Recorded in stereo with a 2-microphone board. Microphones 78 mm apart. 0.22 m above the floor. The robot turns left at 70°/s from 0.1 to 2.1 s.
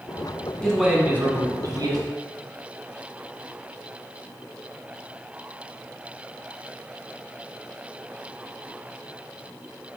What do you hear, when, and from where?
0.6 s a man speaking: 10° left, 1.7 m; by 2.0 s 85° right, 1.7 m